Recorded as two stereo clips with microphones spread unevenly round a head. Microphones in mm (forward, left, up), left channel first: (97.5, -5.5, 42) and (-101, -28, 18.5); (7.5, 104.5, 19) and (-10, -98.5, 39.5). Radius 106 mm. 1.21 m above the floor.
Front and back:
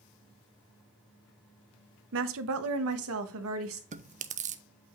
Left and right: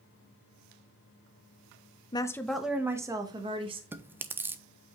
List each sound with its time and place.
2.1 s a woman speaking: 155° left, 0.7 m; by 3.8 s 160° right, 1.6 m
3.9 s chewing: 175° right, 0.6 m